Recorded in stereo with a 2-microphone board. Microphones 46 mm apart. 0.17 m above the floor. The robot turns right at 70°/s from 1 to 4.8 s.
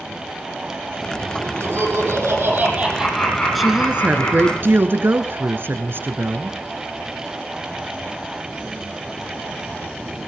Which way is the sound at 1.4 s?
130° right.